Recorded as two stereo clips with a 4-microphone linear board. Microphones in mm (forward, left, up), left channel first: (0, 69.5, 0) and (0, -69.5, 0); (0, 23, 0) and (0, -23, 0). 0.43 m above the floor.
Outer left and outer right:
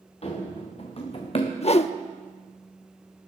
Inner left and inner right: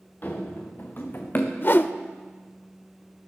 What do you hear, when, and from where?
0.2 s running footsteps: 45° left (ahead or behind), 3.5 m
1.6 s a whoosh: 50° left (ahead or behind), 0.5 m